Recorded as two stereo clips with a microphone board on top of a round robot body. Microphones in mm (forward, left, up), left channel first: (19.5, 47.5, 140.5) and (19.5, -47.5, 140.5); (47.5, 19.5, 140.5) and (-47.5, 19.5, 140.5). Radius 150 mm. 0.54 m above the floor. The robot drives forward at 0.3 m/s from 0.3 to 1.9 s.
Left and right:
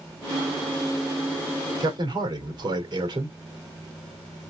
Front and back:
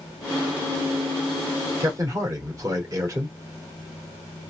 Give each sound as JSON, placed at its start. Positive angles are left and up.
{"t": 1.8, "sound": "a man speaking", "azimuth_deg": -125, "distance_m": 2.0}